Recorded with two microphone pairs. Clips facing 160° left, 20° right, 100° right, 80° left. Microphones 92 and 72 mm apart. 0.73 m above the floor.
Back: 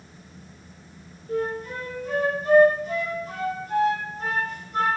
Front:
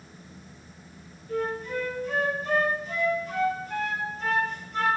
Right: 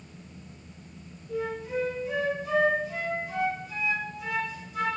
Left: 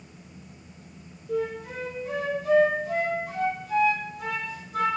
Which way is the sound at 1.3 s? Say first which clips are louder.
Back 2 dB, left 2 dB; 110° left.